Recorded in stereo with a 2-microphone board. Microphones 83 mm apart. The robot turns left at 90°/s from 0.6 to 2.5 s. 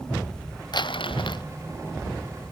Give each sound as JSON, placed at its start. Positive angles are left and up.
{"t": 0.7, "sound": "crumpling", "azimuth_deg": 120}